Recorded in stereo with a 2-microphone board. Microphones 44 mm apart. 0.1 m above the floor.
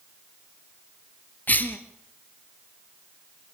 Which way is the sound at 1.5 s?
45° left (ahead or behind).